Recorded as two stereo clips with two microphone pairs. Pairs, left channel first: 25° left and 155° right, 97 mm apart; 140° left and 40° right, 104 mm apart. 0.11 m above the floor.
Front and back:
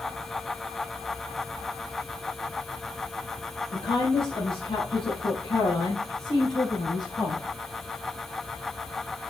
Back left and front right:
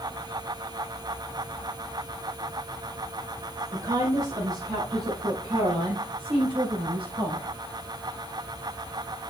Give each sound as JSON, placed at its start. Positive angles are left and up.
{"t": 3.7, "sound": "a woman speaking", "azimuth_deg": 15, "distance_m": 4.0}